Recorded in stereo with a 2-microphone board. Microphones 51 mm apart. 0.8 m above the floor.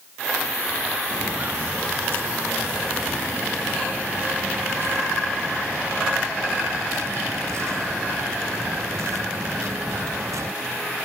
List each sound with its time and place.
1.1 s footsteps: 40° right (ahead or behind); by 10.5 s 75° right (ahead or behind)